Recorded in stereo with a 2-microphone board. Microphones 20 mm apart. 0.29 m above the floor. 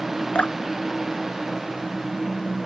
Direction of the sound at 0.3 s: 65° left (ahead or behind).